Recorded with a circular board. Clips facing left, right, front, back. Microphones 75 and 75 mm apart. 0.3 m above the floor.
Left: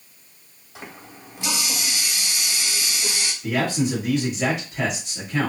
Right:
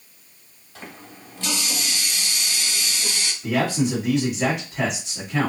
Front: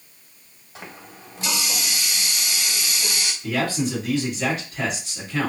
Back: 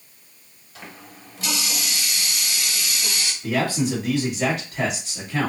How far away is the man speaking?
About 1.6 m.